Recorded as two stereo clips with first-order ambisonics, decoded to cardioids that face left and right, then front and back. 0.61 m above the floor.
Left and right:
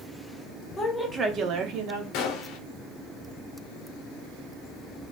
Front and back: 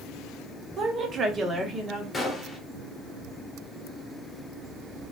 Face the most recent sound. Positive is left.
turn(degrees=85)